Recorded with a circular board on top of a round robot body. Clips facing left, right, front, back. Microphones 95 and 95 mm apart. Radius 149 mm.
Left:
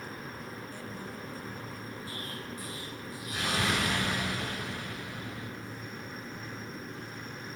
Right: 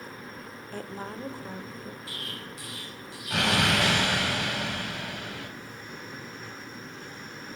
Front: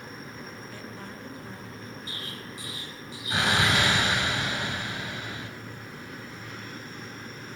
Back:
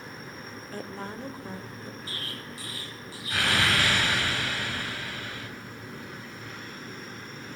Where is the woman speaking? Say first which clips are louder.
Right 4 dB, back 4 dB; 125° right, 2 m.